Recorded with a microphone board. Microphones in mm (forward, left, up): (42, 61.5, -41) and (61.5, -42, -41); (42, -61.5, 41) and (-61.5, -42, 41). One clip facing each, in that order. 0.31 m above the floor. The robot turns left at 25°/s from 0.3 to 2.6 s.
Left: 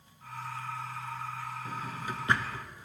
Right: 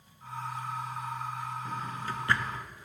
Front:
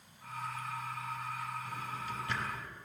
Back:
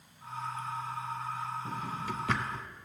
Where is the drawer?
175° right, 0.7 m; by 2.6 s 160° left, 0.7 m.